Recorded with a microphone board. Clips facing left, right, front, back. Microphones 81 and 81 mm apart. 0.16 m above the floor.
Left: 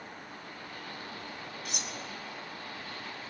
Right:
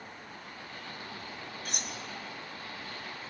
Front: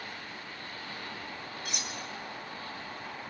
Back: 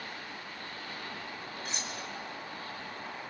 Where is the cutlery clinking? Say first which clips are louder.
Even, even; 125° right, 1.5 m.